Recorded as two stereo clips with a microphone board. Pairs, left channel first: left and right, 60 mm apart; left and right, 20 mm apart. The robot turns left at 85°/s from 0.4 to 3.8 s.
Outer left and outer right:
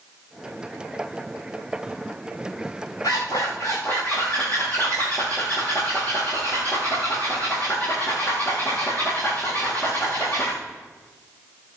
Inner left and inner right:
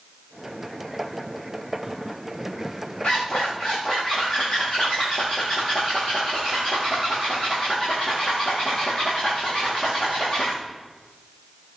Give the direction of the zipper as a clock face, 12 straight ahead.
8 o'clock.